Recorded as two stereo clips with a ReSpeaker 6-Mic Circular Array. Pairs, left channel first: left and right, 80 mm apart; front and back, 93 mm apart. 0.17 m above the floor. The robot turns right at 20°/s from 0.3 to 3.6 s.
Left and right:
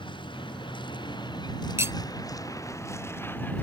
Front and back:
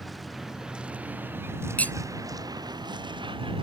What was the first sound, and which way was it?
A vehicle, 90° left.